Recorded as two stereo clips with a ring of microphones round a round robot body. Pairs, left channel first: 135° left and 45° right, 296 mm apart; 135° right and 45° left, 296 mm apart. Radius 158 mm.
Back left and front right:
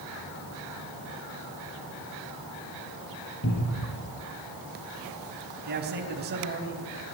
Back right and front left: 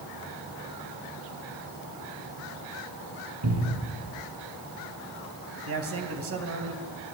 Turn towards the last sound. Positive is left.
turn(degrees=10)